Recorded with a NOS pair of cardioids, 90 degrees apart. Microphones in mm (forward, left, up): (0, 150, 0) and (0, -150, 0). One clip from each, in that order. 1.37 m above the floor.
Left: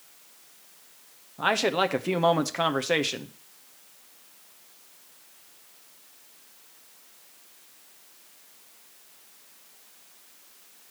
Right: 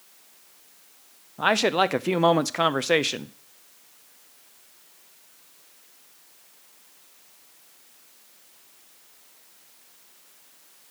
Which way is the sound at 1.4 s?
15° right.